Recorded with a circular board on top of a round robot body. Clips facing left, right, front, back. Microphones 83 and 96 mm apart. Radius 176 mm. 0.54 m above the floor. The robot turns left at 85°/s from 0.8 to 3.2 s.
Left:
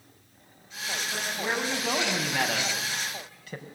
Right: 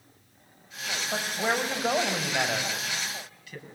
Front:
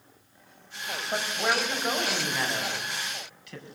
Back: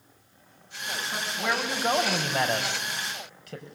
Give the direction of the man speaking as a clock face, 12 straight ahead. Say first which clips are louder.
Right 4 dB, front 2 dB; 2 o'clock.